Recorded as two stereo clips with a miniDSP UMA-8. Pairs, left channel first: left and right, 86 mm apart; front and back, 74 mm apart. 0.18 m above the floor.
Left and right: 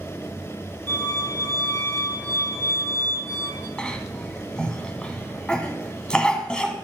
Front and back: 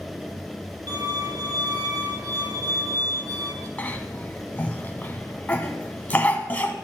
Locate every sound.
0.9 s a violin: 155° left, 3 m
3.8 s a cough: 30° left, 1.4 m